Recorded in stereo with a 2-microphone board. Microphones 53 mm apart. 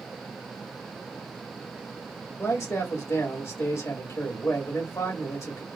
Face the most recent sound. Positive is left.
turn(degrees=70)  # may be behind; listen again after turning